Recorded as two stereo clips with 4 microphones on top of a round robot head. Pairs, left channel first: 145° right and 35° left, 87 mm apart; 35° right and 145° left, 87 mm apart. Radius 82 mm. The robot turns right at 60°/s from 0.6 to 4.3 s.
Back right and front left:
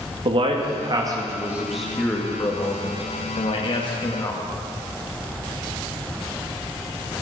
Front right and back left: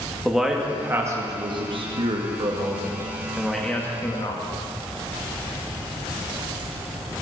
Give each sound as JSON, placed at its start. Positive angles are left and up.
{"t": 0.2, "sound": "a man speaking", "azimuth_deg": 55, "distance_m": 2.0}